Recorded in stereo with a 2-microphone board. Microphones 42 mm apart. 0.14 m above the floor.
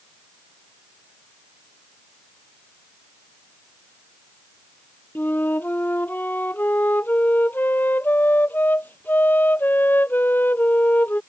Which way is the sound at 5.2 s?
45° left (ahead or behind).